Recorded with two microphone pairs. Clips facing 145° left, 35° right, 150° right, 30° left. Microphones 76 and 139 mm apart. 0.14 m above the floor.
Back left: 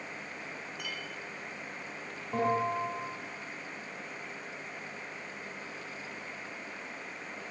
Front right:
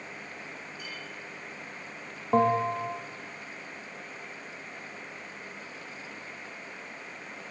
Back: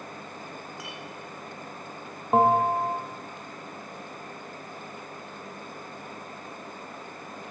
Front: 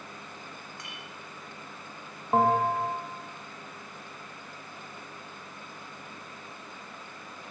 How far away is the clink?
About 5 m.